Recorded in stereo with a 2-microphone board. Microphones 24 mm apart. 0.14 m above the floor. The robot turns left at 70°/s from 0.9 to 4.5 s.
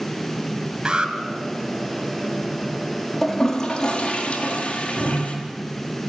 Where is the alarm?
30° right (ahead or behind), 3 m; by 1.1 s 40° right (ahead or behind), 3 m.